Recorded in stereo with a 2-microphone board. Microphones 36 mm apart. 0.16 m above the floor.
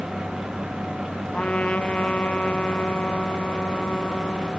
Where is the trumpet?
35° left (ahead or behind), 2 m.